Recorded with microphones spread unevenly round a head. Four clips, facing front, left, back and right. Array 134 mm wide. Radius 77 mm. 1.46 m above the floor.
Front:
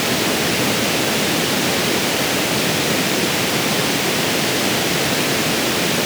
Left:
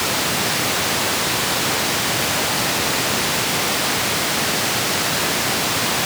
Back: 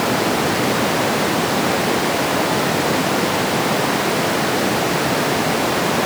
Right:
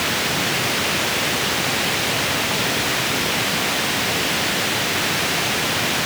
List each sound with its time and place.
Only background noise.